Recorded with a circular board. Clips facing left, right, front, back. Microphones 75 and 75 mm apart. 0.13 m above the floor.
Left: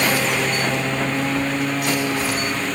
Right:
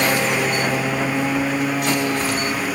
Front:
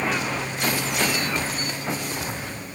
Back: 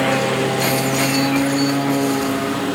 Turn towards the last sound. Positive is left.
turn(degrees=-175)